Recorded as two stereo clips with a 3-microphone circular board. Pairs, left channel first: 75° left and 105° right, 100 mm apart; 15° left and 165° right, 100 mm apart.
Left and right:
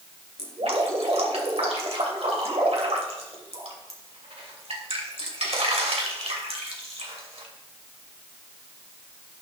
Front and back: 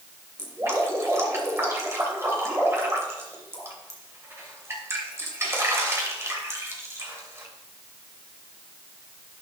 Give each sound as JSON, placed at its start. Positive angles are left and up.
{"t": 0.4, "sound": "dripping", "azimuth_deg": -100, "distance_m": 2.5}